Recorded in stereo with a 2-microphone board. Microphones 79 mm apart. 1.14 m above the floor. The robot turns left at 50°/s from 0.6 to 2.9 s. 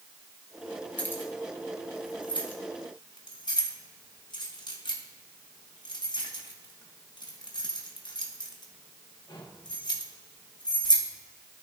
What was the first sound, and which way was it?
Keys jangling, 15° left (ahead or behind).